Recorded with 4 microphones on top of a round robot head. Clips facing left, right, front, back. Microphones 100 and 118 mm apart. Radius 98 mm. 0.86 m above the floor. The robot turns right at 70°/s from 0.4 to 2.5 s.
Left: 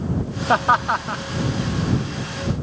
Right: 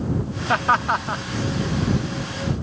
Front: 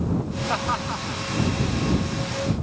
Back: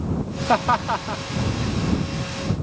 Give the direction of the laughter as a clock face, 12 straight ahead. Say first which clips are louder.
Left 2 dB, back 9 dB; 7 o'clock.